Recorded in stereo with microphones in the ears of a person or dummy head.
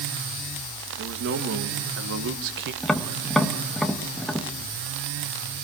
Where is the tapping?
Centre (ahead or behind), 1.6 m.